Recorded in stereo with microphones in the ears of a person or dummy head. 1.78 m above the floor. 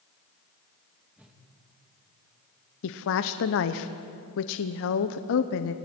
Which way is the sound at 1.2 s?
Centre (ahead or behind).